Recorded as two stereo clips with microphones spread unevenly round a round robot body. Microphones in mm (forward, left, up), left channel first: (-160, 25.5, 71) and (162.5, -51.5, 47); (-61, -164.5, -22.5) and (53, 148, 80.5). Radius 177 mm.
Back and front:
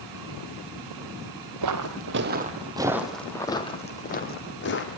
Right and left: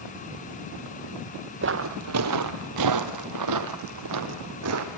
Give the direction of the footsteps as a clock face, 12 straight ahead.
11 o'clock.